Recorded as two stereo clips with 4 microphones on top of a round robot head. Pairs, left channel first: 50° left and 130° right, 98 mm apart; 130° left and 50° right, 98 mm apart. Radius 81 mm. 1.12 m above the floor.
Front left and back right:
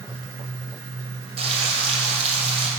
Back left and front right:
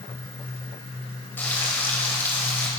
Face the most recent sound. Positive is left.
turn(degrees=-155)